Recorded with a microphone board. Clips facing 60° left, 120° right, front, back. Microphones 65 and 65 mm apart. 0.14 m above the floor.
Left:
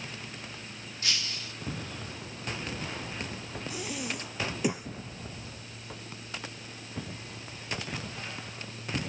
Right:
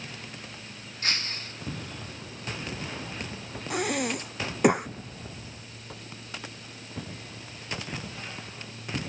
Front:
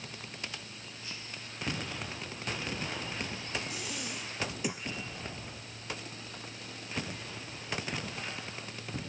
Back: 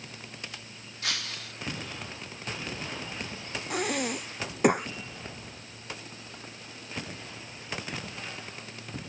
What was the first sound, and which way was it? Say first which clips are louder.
Breaking glass: right 3 dB, back 11 dB; 170° right.